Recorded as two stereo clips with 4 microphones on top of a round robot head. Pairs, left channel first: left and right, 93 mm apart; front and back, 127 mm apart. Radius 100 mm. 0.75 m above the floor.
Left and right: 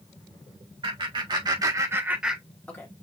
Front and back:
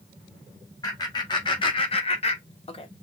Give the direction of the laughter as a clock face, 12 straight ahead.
2 o'clock.